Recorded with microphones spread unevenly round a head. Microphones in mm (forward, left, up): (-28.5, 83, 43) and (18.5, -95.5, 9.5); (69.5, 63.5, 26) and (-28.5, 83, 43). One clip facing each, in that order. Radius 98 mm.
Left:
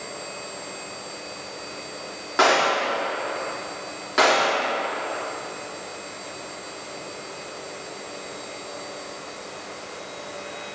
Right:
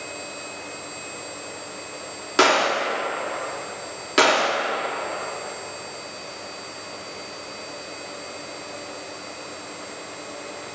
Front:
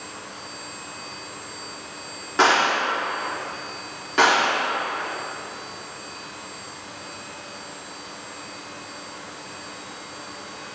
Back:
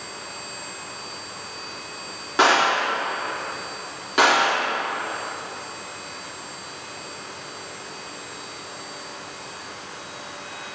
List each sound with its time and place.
2.4 s a gunshot: 125° right, 1.4 m